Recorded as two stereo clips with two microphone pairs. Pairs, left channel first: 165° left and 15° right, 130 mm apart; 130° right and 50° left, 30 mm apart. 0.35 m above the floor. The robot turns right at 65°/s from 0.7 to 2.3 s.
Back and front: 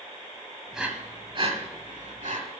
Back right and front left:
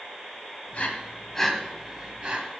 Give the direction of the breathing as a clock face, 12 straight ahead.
3 o'clock.